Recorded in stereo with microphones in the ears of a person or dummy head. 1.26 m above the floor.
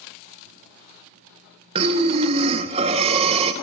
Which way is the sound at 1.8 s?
25° right (ahead or behind).